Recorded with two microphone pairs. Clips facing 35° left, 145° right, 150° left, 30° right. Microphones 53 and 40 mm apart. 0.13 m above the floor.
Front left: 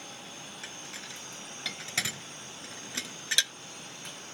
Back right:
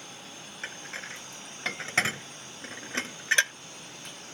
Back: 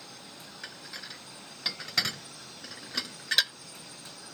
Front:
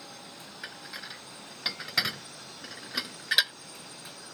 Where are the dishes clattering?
110° right.